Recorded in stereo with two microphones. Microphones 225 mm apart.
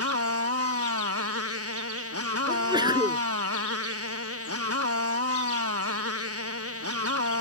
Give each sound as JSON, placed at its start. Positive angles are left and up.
{"t": 0.0, "sound": "a motorcycle", "side_deg": -85}
{"t": 2.5, "sound": "a sneeze", "side_deg": -20}